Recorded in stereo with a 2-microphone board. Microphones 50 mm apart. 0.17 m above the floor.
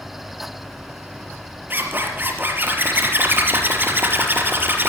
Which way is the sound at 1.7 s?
40° right (ahead or behind).